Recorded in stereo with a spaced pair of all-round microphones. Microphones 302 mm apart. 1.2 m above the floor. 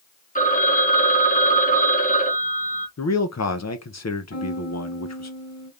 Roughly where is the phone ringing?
Left.